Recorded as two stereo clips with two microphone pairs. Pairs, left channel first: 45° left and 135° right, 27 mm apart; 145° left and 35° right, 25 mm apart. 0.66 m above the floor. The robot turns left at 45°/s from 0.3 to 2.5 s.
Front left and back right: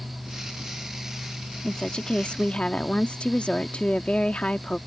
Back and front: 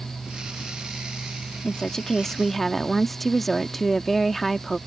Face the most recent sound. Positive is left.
turn(degrees=65)